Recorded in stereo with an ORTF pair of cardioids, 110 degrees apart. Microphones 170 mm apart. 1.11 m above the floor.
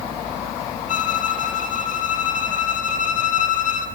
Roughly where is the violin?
Ahead left.